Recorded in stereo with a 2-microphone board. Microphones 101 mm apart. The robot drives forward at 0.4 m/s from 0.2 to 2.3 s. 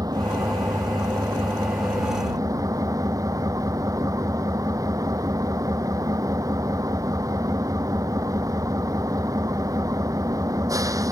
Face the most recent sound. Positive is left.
turn(degrees=-35)  # may be behind; listen again after turning